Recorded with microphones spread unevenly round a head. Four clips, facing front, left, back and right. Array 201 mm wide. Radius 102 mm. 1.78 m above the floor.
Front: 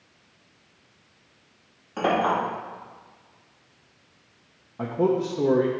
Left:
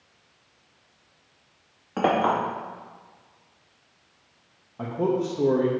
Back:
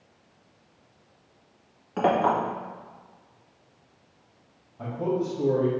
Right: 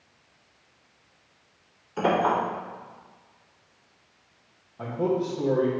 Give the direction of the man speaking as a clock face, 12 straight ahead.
11 o'clock.